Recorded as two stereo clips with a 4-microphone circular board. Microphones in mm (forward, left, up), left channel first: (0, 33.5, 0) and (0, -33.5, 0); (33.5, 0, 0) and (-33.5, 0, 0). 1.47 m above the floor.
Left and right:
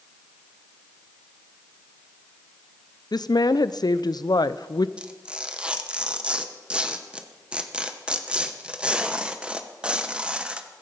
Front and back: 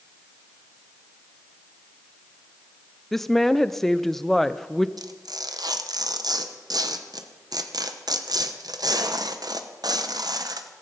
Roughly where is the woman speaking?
Left.